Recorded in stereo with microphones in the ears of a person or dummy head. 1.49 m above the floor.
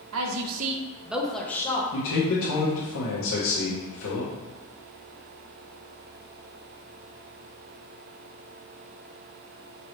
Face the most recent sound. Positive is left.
turn(degrees=75)  # may be behind; listen again after turning